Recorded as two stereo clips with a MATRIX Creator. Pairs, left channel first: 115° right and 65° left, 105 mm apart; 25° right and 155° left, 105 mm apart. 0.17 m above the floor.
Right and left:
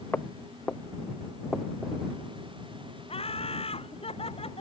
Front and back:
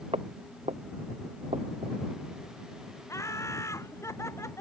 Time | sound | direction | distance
0.1 | footsteps | 175° left | ?
3.1 | laughter | 85° right | ?